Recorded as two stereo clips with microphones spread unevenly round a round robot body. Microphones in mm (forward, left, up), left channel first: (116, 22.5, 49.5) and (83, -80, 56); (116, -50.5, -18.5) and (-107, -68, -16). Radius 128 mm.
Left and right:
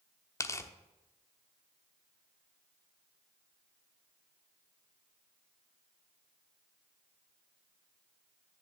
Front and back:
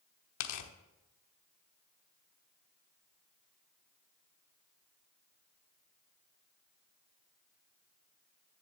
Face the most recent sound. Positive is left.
turn(degrees=5)